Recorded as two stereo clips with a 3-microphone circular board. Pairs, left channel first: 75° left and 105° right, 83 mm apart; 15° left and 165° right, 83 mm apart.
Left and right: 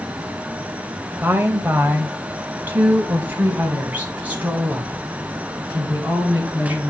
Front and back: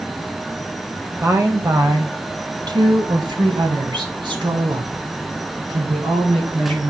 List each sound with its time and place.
1.2 s a woman speaking: 145° right, 1.0 m; by 6.9 s straight behind, 3.5 m